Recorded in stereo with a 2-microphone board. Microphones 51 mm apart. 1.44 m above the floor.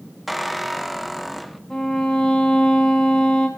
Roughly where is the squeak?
Centre.